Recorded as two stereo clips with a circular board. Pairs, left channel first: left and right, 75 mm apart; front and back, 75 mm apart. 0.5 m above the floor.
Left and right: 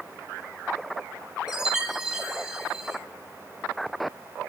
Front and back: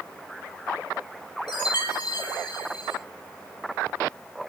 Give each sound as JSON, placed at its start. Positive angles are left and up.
{"t": 1.5, "sound": "a chime", "azimuth_deg": -10, "distance_m": 1.1}